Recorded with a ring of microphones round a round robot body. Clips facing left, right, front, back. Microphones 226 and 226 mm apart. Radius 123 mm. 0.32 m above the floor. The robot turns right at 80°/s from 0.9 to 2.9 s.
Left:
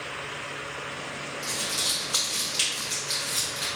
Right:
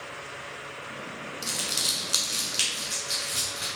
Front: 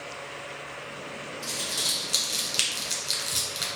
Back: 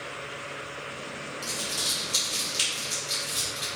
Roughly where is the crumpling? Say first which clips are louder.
Left 1 dB, back 1 dB; right.